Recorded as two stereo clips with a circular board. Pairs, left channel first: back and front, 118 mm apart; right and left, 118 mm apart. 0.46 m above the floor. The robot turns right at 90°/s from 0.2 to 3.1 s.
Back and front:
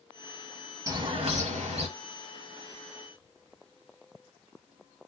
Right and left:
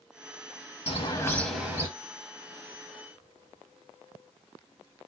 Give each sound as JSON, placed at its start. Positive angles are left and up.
{"t": 0.9, "sound": "a bird", "azimuth_deg": -60, "distance_m": 0.6}